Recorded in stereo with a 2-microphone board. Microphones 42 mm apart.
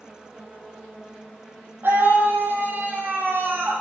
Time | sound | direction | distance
1.8 | a scream | 65° right (ahead or behind) | 4 m